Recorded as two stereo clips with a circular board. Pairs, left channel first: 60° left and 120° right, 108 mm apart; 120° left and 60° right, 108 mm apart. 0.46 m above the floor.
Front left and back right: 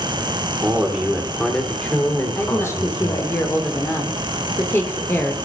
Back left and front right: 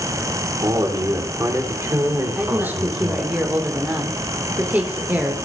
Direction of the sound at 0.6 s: 60° right.